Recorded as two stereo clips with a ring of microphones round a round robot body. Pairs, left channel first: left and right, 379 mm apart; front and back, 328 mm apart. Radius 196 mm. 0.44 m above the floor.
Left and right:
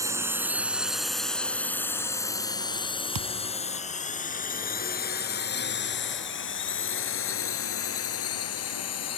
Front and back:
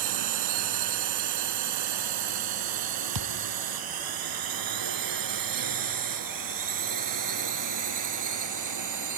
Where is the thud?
135° right.